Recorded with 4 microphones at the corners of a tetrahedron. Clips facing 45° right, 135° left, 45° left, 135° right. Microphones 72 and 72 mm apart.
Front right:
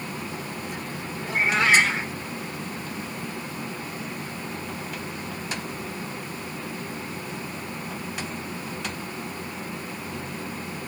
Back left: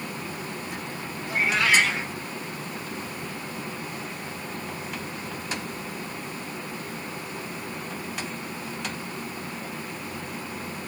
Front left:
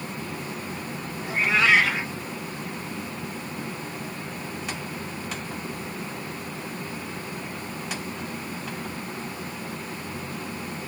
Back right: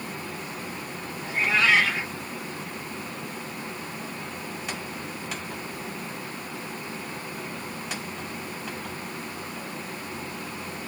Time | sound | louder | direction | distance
1.2 | a cat meowing | front right 2 dB, front left 1 dB | 10° right | 1.5 m